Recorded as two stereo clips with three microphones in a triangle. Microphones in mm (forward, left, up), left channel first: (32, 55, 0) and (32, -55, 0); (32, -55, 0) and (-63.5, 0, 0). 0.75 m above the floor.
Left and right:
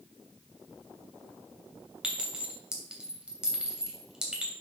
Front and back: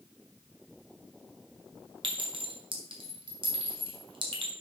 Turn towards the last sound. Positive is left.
turn(degrees=-170)